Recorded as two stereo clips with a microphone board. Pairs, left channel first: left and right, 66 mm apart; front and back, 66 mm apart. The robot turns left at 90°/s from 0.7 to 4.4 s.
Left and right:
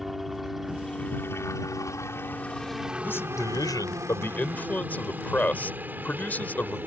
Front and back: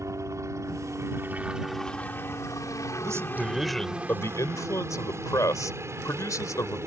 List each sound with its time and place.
0.0 s a helicopter: straight behind; by 6.9 s 145° right
3.0 s a man speaking: 150° left; by 6.8 s 25° left